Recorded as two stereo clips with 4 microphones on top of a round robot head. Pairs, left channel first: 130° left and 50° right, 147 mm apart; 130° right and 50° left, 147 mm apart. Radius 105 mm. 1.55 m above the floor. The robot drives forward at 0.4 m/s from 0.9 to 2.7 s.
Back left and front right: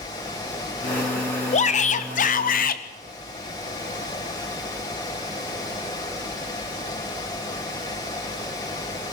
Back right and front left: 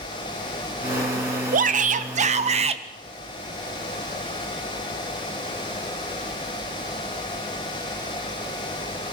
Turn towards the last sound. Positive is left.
turn(degrees=100)